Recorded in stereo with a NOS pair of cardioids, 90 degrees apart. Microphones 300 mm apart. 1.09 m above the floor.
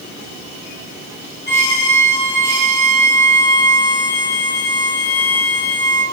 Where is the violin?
35° left, 5 m.